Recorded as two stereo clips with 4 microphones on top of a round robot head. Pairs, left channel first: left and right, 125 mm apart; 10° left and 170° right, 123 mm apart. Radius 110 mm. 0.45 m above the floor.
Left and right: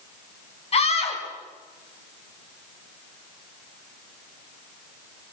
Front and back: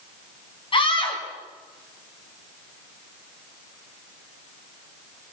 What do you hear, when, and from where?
0.7 s a scream: 55° left, 5.5 m